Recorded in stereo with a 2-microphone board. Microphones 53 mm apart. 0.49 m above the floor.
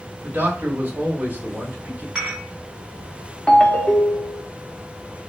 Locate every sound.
0.2 s a man speaking: 35° right (ahead or behind), 2.0 m
2.1 s dishes clattering: 15° right (ahead or behind), 2.5 m
3.5 s a ringtone: 20° left (ahead or behind), 0.7 m